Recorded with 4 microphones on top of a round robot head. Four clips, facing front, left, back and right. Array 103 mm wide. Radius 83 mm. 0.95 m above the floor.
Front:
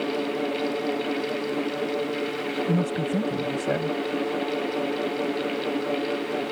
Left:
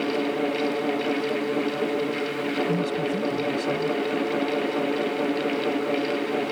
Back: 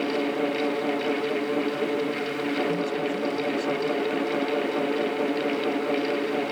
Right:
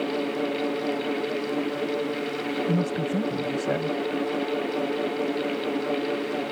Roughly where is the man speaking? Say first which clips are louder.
Left 1 dB, front 1 dB; ahead right.